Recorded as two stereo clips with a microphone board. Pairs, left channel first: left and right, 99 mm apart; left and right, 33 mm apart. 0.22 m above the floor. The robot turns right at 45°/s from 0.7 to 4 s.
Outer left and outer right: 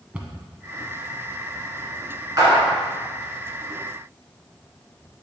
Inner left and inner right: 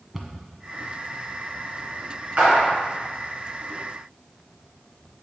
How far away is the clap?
About 2.5 m.